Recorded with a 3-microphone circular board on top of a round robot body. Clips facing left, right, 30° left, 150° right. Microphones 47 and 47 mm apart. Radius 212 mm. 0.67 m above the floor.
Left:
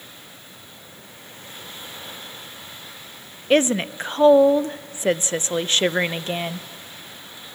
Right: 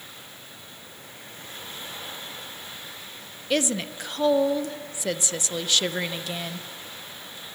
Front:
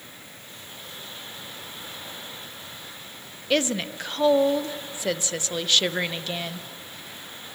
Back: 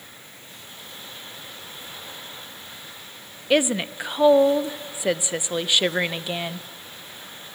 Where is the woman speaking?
140° left, 0.6 m.